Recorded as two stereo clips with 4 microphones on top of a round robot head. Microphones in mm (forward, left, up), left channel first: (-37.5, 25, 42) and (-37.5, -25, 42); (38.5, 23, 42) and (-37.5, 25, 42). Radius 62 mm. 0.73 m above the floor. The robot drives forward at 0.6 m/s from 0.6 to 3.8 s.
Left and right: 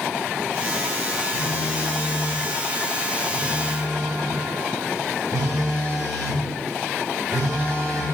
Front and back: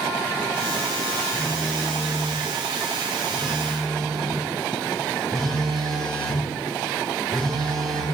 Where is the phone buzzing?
60° right, 3.5 m; by 8.0 s 90° right, 3 m.